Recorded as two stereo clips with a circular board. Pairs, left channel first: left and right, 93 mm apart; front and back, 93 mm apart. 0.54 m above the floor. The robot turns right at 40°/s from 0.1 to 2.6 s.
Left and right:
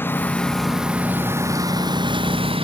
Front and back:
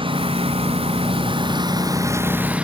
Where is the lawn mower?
155° left; by 2.6 s 105° right.